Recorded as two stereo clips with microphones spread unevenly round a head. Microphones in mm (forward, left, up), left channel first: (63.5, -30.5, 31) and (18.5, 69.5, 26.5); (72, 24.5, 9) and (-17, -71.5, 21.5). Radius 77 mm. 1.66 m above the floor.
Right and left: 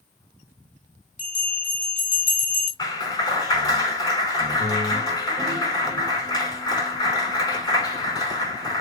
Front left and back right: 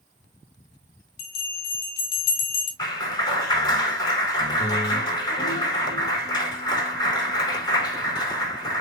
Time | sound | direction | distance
1.2 | a bell | 40° left | 4 m
2.8 | a clap | 10° right | 6 m